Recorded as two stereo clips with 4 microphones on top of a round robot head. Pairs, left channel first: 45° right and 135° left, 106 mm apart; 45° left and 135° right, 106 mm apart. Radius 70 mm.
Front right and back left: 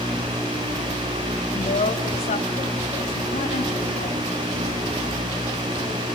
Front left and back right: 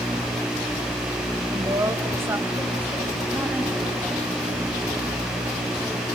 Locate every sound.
1.5 s a woman speaking: 75° right, 2.5 m; by 6.1 s 50° right, 7 m